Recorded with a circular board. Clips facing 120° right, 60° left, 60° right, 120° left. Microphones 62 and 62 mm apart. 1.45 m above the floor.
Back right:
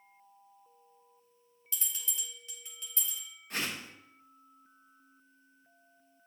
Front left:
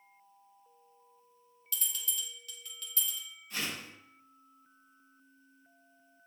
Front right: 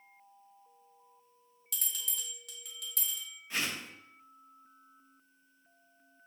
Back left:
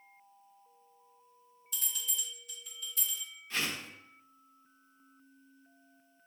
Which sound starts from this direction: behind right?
A whoosh, at 3.5 s.